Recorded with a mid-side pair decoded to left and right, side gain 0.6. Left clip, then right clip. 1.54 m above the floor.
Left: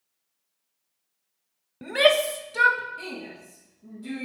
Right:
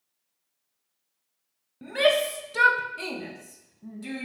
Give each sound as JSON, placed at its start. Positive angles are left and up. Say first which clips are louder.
{"t": 1.8, "sound": "a shout", "louder": "left 3 dB", "azimuth_deg": 35, "distance_m": 0.6}